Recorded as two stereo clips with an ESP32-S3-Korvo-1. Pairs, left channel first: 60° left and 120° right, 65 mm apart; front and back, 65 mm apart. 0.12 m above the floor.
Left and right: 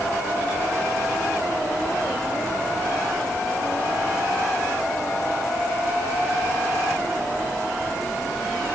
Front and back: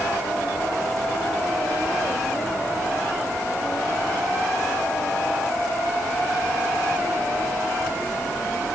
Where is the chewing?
No chewing in this recording.